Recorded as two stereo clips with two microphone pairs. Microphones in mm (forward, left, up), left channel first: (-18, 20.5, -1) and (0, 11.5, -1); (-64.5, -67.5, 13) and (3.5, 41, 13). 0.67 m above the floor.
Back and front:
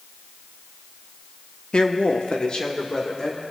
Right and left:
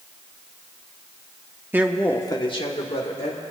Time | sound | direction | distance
1.7 | a woman speaking | 130° left | 1.0 m